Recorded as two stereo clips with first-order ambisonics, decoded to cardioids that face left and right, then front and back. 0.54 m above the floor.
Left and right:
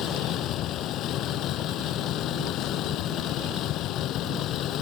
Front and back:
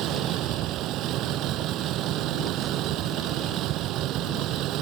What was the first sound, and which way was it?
A vehicle, 135° left.